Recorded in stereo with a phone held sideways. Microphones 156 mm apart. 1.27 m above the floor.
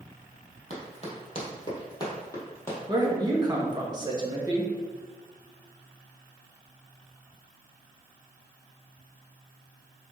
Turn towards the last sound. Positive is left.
turn(degrees=-25)  # may be behind; listen again after turning